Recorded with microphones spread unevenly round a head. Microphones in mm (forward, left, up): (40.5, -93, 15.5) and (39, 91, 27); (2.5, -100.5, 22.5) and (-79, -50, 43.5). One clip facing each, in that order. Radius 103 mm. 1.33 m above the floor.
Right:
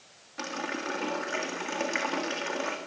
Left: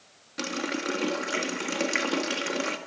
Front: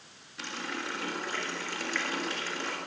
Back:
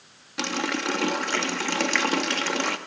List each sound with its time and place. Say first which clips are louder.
0.4 s a running tap: left 4 dB, back 10 dB; 145° left, 1.8 m